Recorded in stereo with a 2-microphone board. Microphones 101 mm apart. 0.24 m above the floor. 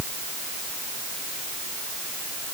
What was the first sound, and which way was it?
Only background noise.